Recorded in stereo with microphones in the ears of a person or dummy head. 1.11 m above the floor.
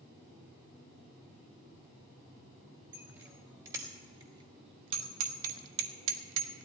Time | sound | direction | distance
2.9 | a bicycle bell | 15° right (ahead or behind) | 2.5 m